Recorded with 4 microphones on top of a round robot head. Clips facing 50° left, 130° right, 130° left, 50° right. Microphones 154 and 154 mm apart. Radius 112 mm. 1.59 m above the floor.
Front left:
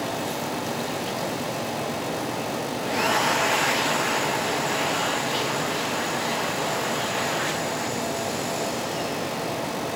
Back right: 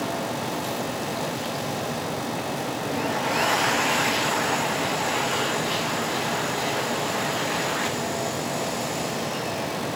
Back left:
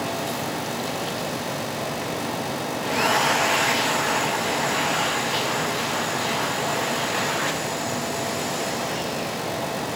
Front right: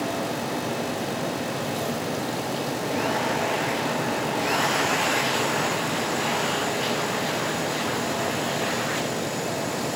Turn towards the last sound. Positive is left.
No sound to turn to.